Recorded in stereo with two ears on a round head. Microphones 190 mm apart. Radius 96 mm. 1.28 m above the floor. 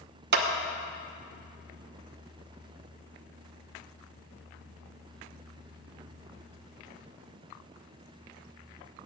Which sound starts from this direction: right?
A clap, at 0.3 s.